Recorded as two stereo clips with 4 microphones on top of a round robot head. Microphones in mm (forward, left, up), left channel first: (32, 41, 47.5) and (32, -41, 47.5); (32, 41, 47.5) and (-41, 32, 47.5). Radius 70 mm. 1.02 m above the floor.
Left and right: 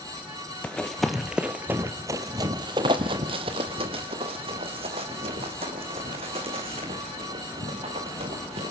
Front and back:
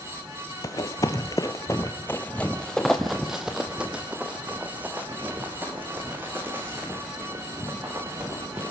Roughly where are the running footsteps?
Ahead.